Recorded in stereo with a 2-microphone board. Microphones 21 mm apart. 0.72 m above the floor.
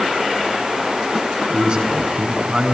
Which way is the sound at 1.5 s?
60° right (ahead or behind).